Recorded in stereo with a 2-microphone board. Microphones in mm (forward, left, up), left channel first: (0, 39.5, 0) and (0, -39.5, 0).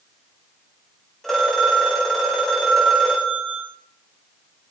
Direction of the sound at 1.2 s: 5° left (ahead or behind).